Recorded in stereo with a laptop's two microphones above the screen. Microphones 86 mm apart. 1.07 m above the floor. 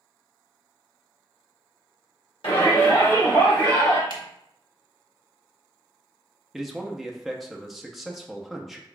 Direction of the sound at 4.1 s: 75° right (ahead or behind).